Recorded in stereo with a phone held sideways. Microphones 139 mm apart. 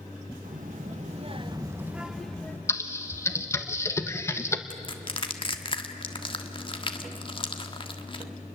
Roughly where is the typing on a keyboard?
Centre.